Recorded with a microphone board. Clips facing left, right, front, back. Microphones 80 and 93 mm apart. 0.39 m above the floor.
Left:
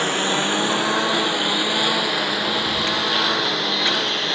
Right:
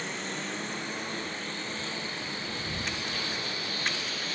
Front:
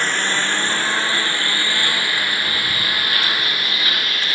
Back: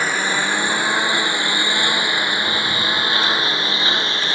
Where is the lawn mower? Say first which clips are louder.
Left 14 dB, back 1 dB; 100° left; by 4.3 s 115° left.